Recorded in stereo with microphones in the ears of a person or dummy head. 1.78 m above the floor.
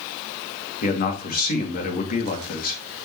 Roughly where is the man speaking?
Left.